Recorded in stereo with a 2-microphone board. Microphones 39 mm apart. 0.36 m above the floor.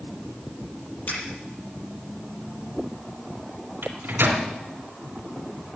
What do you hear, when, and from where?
1.1 s a finger snap: 55° left (ahead or behind), 8.5 m
3.8 s a microwave: 55° right (ahead or behind), 3 m